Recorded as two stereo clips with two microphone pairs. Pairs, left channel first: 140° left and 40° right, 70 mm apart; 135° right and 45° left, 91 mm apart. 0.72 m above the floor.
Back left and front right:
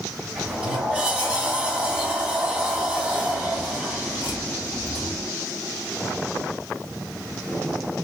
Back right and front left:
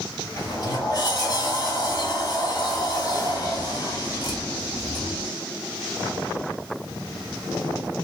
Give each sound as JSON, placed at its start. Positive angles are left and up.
{"t": 0.4, "sound": "a sliding door", "azimuth_deg": -110, "distance_m": 1.0}